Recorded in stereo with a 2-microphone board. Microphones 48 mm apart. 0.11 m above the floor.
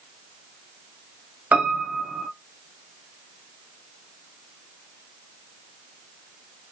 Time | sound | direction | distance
1.5 | a piano | 35° right (ahead or behind) | 0.5 m